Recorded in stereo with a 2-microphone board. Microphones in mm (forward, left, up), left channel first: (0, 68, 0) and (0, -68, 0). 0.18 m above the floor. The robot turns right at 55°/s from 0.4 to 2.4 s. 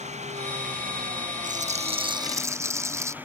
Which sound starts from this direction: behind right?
An engine running, at 0.0 s.